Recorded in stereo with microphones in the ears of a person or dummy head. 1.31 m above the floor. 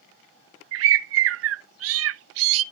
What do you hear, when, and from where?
0.7 s a bird: 75° right (ahead or behind), 0.6 m